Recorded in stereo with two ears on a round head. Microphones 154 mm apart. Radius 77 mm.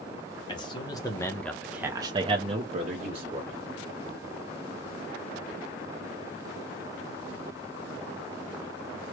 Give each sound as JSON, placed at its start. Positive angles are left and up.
{"t": 0.5, "sound": "a man speaking", "side_deg": 25, "distance_m": 1.2}